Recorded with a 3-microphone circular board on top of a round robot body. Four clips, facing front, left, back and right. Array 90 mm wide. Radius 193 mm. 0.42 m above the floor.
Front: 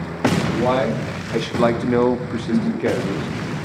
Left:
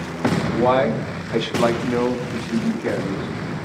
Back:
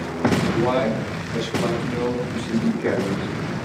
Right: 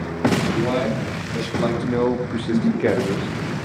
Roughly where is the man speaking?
Left.